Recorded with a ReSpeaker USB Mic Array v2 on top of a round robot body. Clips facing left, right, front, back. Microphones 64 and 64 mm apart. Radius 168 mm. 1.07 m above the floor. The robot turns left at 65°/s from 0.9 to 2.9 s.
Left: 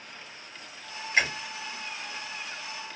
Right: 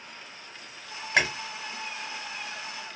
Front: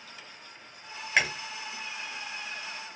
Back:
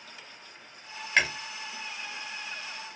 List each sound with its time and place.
1.2 s chewing: 80° right, 0.6 m; by 1.3 s 90° right, 0.6 m